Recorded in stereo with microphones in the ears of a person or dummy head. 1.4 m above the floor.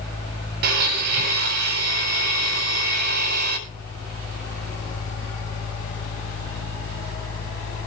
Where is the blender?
55° right (ahead or behind), 8 m.